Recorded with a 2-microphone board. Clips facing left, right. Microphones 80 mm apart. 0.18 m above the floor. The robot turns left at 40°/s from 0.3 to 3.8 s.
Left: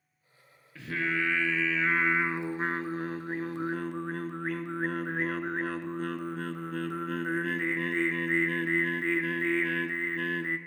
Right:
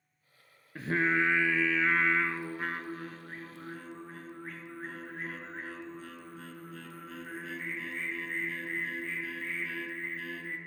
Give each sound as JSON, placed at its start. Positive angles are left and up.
{"t": 0.8, "sound": "singing", "azimuth_deg": -140, "distance_m": 0.6}